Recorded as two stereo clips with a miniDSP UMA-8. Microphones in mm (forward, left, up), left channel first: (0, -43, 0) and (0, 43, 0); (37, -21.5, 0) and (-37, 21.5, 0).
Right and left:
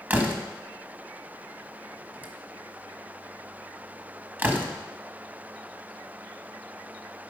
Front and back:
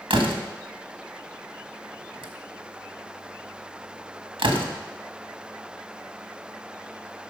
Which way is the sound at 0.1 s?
160° left.